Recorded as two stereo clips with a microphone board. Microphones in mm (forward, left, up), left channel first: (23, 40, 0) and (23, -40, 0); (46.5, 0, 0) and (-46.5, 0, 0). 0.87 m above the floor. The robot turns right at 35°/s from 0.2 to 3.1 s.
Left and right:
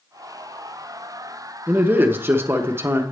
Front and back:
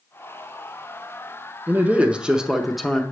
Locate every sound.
1.7 s a man speaking: 130° right, 0.6 m; by 3.0 s 85° right, 0.6 m